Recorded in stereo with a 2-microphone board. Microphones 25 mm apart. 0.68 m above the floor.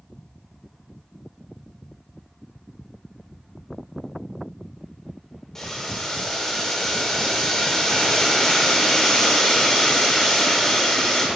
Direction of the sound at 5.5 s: 15° left (ahead or behind).